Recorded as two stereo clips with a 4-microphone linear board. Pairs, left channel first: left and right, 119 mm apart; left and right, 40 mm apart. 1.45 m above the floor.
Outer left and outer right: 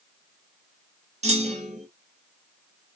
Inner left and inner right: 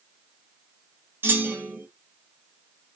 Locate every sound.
1.2 s a clunk: 70° right (ahead or behind), 0.9 m